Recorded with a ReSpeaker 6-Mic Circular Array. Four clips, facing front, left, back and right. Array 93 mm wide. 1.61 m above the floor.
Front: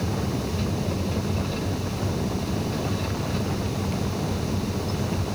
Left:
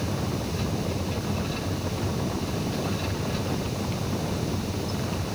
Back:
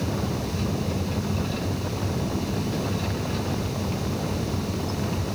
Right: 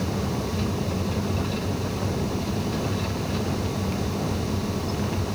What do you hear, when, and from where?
Only background noise.